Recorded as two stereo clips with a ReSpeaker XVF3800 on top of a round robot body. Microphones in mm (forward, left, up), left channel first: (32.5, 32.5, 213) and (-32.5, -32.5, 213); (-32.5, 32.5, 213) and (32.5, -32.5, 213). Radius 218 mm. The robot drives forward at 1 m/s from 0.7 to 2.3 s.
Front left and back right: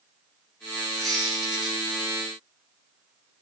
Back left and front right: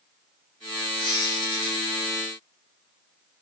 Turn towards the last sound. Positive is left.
turn(degrees=140)